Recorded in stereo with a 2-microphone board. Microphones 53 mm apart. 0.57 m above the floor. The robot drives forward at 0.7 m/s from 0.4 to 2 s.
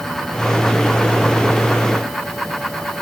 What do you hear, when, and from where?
Only background noise.